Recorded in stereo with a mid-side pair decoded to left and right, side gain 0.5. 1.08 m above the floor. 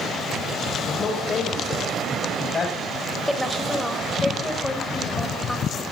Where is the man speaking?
45° left, 5.5 m; by 2.8 s 25° left, 6.5 m.